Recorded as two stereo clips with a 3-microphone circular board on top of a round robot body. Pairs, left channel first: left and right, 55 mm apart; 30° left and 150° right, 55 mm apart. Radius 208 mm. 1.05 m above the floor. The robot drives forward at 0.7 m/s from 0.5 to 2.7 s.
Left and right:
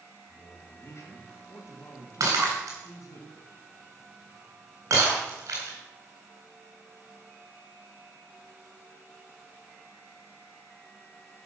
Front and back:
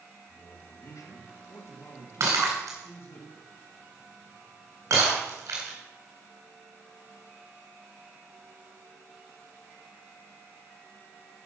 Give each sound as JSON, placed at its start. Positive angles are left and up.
{"t": 0.3, "sound": "a man speaking", "azimuth_deg": 45, "distance_m": 3.0}
{"t": 2.2, "sound": "breaking glass", "azimuth_deg": -120, "distance_m": 3.5}